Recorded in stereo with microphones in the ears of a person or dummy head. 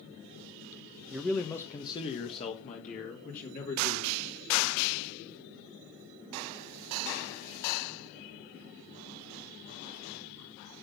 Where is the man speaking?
5° right (ahead or behind), 1.0 m; by 4.2 s 50° left (ahead or behind), 3 m.